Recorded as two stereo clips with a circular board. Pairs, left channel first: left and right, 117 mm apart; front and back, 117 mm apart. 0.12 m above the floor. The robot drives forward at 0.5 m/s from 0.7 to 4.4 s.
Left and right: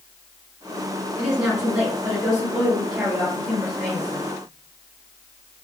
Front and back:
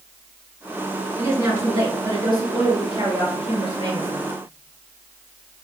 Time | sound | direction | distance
1.2 | a woman speaking | 160° right | 1.7 m